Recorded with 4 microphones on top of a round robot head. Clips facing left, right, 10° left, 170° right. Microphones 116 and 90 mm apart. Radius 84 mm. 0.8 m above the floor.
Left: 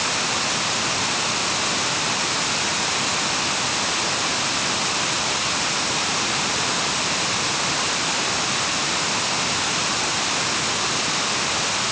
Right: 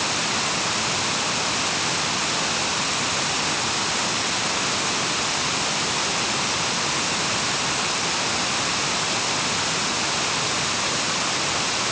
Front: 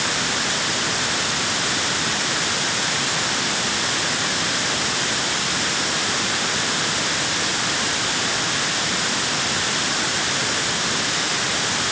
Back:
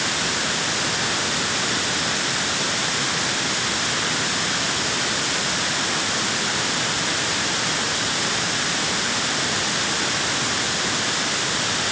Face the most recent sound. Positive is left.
No sound to turn to.